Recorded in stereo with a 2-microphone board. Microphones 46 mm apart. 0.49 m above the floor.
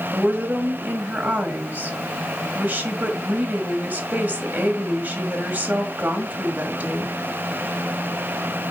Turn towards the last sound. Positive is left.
turn(degrees=-35)  # may be behind; listen again after turning